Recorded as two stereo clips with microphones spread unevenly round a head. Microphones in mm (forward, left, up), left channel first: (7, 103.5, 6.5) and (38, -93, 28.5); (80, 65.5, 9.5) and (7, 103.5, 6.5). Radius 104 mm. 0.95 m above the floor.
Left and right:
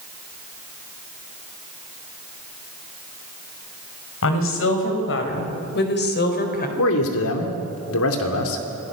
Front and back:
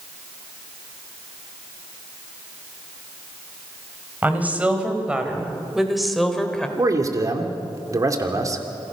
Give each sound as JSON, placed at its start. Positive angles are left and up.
{"t": 4.2, "sound": "a woman speaking", "azimuth_deg": 80, "distance_m": 4.5}
{"t": 6.8, "sound": "a man speaking", "azimuth_deg": 105, "distance_m": 2.5}